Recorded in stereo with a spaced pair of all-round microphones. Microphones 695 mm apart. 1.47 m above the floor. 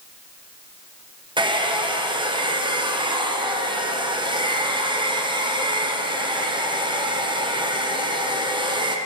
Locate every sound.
1.4 s a hair dryer: 5° right (ahead or behind), 0.8 m